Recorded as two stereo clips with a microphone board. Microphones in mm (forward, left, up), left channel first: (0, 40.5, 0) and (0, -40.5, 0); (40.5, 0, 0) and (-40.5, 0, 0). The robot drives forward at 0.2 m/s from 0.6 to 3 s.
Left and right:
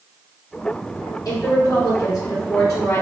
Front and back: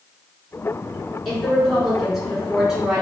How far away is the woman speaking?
About 2.0 m.